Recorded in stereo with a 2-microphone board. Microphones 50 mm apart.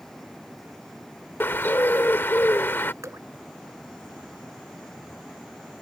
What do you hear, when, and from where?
1.4 s a bird: 45° left (ahead or behind)
3.0 s dripping: 85° right